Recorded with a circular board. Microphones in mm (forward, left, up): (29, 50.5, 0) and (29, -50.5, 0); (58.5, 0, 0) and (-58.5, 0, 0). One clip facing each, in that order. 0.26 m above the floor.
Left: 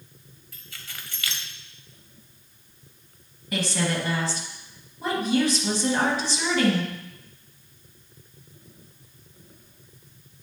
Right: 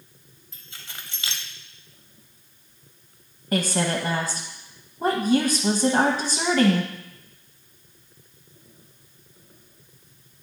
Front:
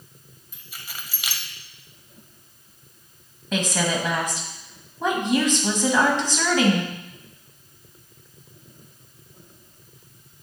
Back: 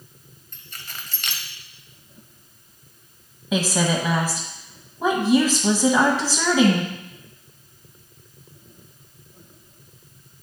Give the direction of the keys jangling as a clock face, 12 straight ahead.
2 o'clock.